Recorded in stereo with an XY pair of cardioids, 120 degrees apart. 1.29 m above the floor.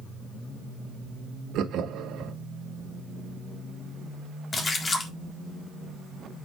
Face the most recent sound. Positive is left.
turn(degrees=30)